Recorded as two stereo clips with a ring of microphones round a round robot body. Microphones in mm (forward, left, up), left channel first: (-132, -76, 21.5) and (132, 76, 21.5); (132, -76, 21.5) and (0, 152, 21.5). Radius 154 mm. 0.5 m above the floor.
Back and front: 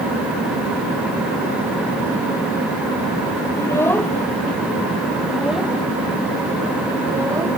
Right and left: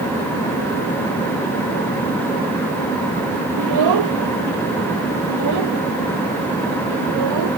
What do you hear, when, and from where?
3.6 s a child speaking: 130° left; by 7.5 s 110° left